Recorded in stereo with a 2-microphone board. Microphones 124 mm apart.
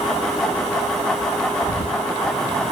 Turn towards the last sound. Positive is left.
turn(degrees=50)  # may be behind; listen again after turning